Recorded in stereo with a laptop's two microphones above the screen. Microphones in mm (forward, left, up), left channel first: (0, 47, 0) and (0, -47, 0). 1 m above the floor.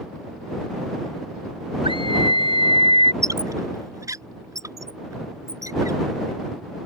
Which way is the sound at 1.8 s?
65° right (ahead or behind).